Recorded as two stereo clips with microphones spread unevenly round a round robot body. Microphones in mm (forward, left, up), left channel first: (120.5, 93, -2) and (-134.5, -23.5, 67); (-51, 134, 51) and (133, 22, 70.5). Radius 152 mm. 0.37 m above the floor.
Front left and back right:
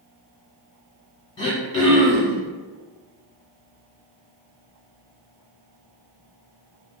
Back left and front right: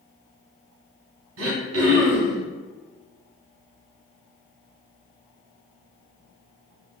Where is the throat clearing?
50° right, 0.9 m.